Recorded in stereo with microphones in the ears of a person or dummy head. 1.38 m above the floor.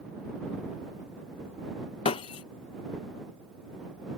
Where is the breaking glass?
20° left (ahead or behind).